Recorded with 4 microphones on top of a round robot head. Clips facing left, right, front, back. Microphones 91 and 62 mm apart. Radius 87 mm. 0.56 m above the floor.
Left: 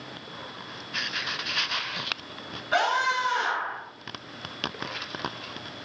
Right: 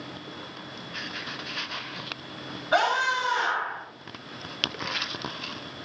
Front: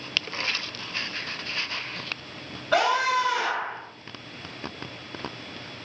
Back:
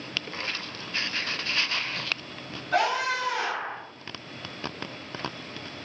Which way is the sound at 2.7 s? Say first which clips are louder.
Right 1 dB, front 3 dB; 20° right.